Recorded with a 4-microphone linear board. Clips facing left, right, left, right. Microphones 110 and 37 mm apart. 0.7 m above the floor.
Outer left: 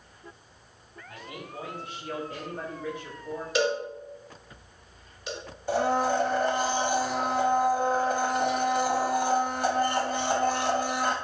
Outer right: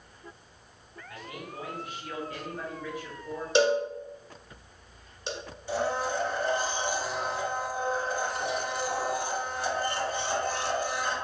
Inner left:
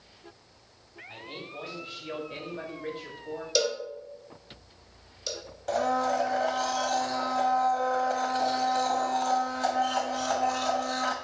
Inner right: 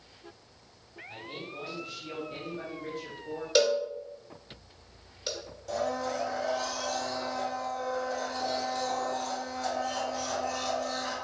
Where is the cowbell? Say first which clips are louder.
Outer right 3 dB, inner right 4 dB; 25° right (ahead or behind), 1.0 m.